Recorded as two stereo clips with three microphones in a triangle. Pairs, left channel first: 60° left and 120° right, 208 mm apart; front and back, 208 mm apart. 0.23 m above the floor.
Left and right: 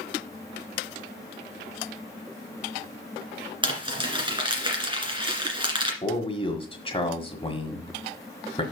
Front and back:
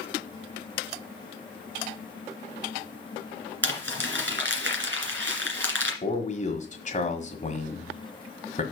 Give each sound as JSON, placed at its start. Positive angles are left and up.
{"t": 3.6, "sound": "crumpling", "azimuth_deg": 175, "distance_m": 2.0}
{"t": 6.0, "sound": "a man speaking", "azimuth_deg": 15, "distance_m": 1.6}